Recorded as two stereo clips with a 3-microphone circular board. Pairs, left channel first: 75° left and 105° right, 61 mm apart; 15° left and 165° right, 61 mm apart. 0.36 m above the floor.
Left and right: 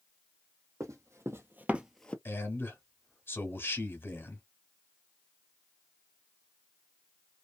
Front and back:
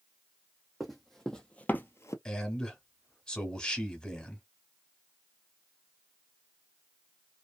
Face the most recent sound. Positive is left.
turn(degrees=80)